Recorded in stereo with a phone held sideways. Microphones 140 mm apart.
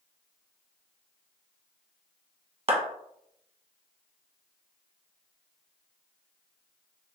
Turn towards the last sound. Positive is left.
turn(degrees=-40)  # may be behind; listen again after turning